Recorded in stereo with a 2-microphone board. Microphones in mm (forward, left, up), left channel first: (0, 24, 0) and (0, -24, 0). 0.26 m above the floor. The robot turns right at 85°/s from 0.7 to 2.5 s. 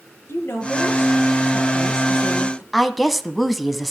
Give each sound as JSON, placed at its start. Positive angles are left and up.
{"t": 0.3, "sound": "a woman speaking", "azimuth_deg": 70, "distance_m": 5.0}
{"t": 2.7, "sound": "a woman speaking", "side_deg": 0, "distance_m": 1.6}